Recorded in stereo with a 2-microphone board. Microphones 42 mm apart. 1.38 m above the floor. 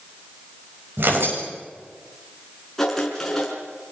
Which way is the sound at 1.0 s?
60° right (ahead or behind).